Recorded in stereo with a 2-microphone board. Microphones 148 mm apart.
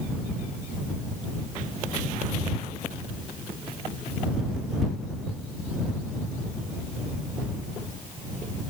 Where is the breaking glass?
No breaking glass in this recording.